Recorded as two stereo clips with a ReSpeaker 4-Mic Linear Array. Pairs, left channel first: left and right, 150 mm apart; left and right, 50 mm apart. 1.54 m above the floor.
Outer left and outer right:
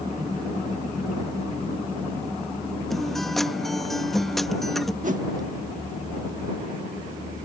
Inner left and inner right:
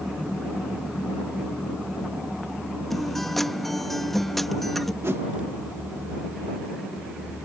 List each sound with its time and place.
2.9 s a guitar: centre (ahead or behind)
5.0 s a whoosh: 60° right (ahead or behind)